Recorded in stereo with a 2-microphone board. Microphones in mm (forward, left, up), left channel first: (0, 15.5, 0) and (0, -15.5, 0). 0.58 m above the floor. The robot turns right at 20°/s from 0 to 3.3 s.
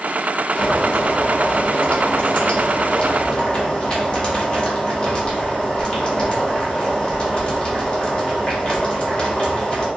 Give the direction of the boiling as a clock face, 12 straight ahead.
9 o'clock.